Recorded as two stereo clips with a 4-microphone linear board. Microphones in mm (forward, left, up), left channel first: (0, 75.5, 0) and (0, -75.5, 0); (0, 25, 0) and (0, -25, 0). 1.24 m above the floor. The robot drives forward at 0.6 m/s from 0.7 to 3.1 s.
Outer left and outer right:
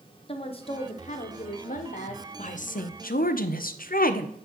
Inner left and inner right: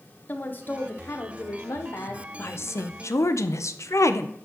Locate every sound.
0.3 s a woman speaking: 40° left (ahead or behind), 0.8 m; by 2.3 s 45° left (ahead or behind), 0.7 m
2.4 s a woman speaking: 50° left (ahead or behind), 0.7 m; by 4.3 s 65° left (ahead or behind), 0.5 m